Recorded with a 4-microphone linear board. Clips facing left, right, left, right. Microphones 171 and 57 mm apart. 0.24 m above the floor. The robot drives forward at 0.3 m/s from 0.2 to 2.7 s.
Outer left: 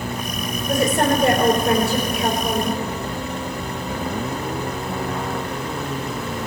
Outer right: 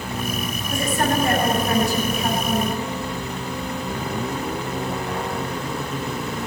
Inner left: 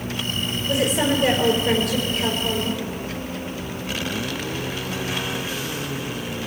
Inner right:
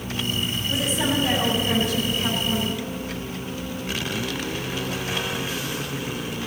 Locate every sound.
0.7 s a woman speaking: 65° left (ahead or behind), 4.5 m; by 2.8 s 70° left (ahead or behind), 4.5 m